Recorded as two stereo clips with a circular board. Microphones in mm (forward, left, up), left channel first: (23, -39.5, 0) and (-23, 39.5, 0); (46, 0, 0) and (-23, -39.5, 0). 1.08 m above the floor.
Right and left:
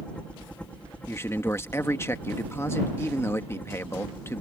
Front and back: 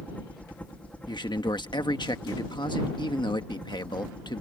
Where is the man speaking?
Straight ahead.